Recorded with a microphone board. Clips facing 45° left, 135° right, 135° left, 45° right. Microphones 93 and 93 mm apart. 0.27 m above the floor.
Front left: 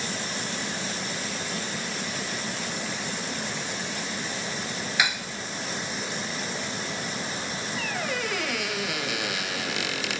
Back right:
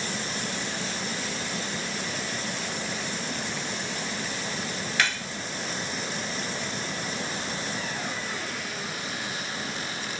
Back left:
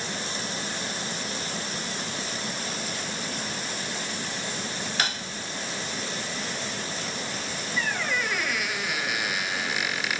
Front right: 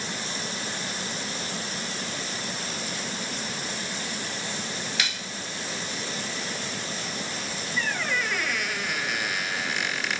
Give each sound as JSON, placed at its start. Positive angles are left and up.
{"t": 5.0, "sound": "cutlery clinking", "azimuth_deg": 120, "distance_m": 0.8}
{"t": 7.8, "sound": "a squeak", "azimuth_deg": 50, "distance_m": 2.5}